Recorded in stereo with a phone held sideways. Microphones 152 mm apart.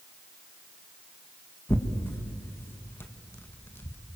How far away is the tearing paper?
About 1.9 m.